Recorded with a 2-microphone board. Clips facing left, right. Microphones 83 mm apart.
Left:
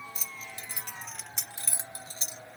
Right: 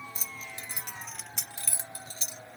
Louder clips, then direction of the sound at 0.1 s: Right 1 dB; 40° right (ahead or behind).